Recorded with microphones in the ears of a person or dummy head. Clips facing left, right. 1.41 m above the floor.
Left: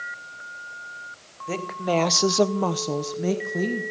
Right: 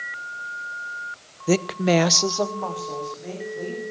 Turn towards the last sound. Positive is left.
turn(degrees=75)  # may be behind; listen again after turning